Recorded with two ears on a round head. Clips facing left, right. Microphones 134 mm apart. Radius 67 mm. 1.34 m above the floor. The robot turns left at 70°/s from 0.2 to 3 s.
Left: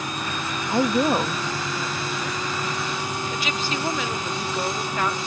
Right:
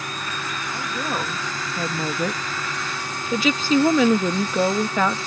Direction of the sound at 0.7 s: 45° left.